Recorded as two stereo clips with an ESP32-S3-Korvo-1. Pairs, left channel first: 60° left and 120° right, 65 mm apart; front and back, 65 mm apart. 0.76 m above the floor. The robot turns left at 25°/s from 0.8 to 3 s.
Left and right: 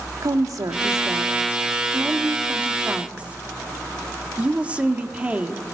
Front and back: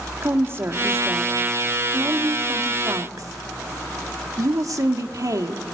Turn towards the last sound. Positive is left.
turn(degrees=170)